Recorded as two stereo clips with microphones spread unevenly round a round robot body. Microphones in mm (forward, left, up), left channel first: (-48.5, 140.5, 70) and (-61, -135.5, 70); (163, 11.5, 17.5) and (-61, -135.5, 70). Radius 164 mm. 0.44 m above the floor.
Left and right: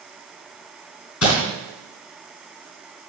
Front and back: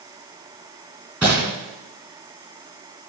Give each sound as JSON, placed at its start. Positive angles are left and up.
{"t": 1.2, "sound": "crumpling", "azimuth_deg": 125, "distance_m": 3.5}